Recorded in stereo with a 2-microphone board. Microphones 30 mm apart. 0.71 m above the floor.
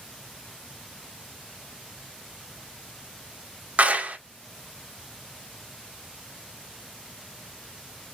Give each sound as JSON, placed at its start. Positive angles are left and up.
{"t": 3.8, "sound": "a clap", "side_deg": -50, "distance_m": 1.1}